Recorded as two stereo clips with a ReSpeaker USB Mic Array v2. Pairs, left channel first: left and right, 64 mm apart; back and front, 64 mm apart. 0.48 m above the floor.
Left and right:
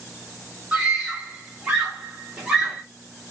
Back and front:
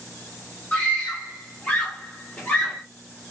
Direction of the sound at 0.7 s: 150° right.